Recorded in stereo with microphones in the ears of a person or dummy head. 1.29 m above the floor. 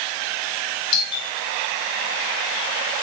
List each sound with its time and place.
0.9 s a doorbell: 25° left (ahead or behind), 7.5 m